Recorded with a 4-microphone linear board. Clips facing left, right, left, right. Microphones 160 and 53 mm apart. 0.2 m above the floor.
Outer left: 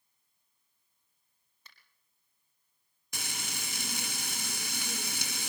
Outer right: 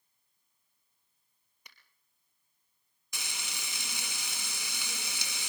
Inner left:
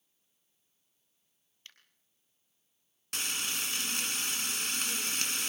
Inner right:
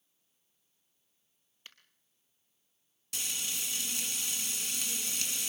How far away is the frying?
About 1.1 m.